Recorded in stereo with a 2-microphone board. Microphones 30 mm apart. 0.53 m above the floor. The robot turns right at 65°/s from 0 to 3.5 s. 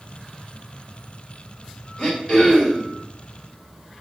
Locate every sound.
2.0 s throat clearing: 25° left (ahead or behind), 1.3 m